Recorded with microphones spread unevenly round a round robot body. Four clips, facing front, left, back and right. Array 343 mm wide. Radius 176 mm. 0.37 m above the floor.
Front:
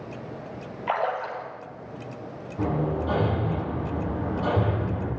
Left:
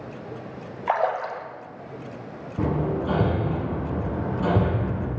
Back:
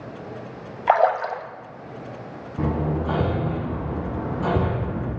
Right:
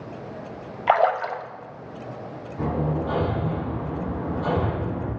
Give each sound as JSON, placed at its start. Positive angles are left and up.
{"t": 0.9, "sound": "a splash", "azimuth_deg": -150, "distance_m": 1.6}
{"t": 2.6, "sound": "hammering", "azimuth_deg": 125, "distance_m": 7.5}